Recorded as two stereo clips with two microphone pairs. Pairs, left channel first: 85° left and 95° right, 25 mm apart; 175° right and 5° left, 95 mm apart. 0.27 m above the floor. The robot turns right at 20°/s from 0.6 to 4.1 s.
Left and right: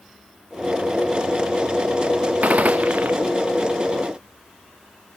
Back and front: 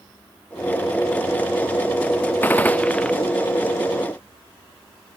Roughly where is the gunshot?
Right.